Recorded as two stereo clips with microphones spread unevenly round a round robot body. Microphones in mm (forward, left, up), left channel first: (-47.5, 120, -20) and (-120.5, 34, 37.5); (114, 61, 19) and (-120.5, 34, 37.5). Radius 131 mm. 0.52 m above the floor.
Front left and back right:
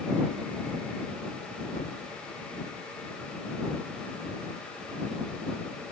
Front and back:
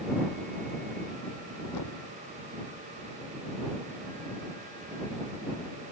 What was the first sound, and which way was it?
A thud, 10° right.